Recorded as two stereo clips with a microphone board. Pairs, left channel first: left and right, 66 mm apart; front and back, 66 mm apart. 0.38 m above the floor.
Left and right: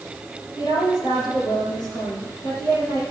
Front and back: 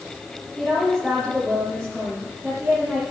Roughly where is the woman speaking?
Left.